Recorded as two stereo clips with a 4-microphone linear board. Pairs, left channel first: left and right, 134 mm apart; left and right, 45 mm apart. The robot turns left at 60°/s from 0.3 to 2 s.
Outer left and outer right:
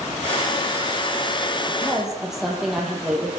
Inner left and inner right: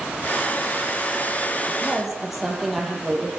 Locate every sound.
1.7 s a woman speaking: 15° left (ahead or behind), 8 m; by 3.3 s 5° right (ahead or behind), 8 m